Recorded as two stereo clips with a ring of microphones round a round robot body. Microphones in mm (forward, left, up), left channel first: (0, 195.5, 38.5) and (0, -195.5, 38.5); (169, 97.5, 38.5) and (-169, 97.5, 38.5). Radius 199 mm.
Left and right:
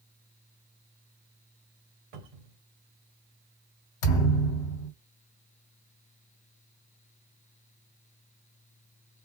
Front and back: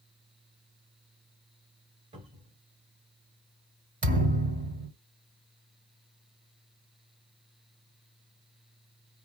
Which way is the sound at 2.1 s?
105° right.